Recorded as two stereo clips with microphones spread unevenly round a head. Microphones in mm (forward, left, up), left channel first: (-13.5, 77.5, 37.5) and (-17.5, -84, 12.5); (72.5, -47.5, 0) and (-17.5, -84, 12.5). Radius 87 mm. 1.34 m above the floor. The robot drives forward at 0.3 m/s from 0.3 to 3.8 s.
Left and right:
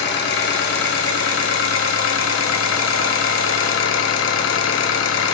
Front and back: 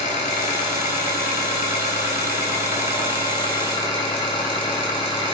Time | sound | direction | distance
0.0 | an engine running | 60° left | 2 m